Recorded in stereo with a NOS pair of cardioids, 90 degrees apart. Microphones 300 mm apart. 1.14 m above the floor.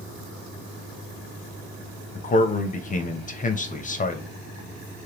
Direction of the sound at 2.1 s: 25° left.